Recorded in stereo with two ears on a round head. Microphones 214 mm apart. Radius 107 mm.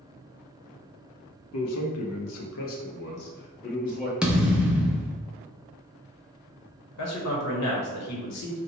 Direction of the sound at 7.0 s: 75° left (ahead or behind).